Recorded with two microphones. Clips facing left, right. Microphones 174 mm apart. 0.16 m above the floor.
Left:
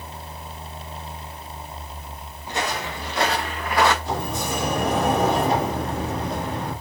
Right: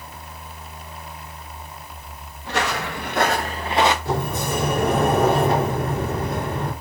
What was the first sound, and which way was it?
Footsteps, 80° right.